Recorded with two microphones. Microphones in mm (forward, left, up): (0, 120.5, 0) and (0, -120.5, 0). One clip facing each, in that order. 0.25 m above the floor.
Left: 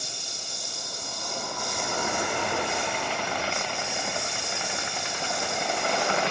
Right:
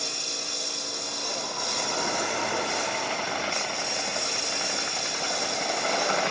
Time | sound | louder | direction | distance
0.0 | a lawn mower | right 6 dB | 75° right (ahead or behind) | ?